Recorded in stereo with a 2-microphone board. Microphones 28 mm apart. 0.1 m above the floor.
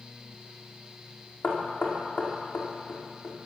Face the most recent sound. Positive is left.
turn(degrees=75)  # may be behind; listen again after turning